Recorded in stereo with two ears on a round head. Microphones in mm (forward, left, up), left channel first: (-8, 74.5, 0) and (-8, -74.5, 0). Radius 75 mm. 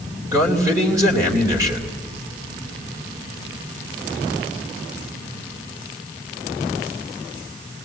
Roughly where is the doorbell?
I don't hear a doorbell.